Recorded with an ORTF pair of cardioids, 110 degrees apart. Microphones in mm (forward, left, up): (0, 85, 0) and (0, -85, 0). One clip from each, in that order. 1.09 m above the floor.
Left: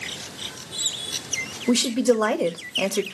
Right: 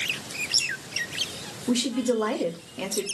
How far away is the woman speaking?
About 0.9 m.